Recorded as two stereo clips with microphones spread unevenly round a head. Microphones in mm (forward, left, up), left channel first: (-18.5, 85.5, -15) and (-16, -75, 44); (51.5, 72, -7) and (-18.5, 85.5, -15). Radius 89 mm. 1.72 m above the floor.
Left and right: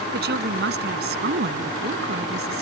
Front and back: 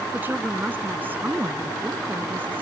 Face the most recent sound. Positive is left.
turn(degrees=-110)